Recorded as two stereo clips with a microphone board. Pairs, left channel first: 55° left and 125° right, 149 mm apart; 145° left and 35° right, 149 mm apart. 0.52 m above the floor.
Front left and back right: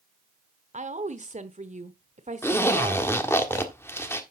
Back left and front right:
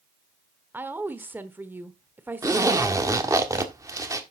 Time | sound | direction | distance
0.7 | a woman speaking | 110° right | 1.0 m
2.4 | a zipper | straight ahead | 1.4 m